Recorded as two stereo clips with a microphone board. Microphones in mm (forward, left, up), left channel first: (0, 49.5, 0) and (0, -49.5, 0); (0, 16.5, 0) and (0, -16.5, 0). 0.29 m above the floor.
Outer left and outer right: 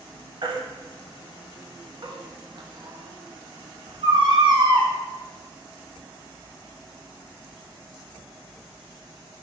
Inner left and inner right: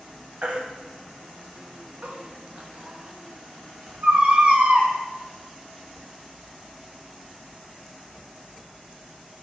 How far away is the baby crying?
About 0.5 m.